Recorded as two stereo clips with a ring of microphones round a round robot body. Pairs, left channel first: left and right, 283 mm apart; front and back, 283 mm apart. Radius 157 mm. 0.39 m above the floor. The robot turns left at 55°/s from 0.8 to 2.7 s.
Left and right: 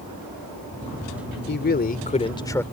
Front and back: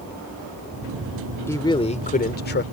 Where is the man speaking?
75° left; by 2.6 s 10° left.